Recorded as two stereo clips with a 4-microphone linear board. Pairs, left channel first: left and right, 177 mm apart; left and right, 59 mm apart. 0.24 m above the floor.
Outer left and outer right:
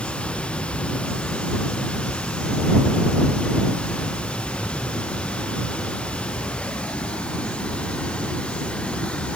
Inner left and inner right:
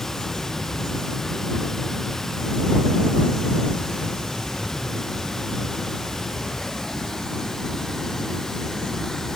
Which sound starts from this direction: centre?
Running water, at 0.0 s.